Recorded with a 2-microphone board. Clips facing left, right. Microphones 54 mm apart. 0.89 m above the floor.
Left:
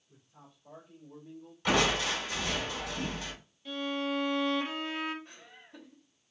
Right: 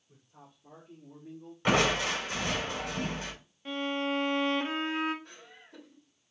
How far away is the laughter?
About 3 m.